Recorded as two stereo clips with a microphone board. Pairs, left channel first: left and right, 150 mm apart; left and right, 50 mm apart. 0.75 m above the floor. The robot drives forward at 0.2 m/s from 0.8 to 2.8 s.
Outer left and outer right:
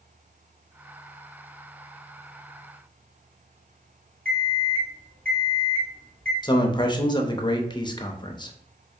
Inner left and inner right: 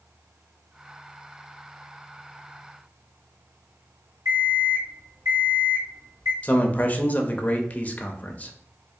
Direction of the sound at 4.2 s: 75° right (ahead or behind).